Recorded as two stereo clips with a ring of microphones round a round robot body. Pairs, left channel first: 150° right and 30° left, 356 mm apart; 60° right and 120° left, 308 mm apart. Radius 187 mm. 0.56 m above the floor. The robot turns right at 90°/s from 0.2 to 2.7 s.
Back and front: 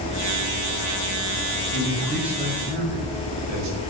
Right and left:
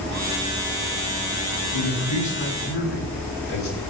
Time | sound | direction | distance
1.7 | a man speaking | 105° right | 6.5 m